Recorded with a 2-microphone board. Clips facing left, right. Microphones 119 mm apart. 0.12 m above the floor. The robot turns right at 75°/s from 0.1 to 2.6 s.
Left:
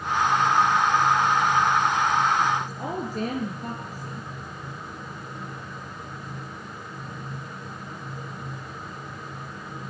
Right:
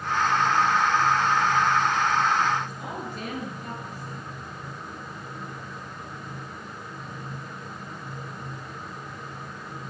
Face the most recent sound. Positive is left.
turn(degrees=40)  # may be behind; listen again after turning